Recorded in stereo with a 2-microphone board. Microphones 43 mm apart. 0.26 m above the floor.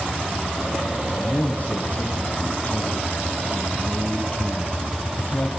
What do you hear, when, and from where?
1.2 s a man speaking: 40° left (ahead or behind), 2 m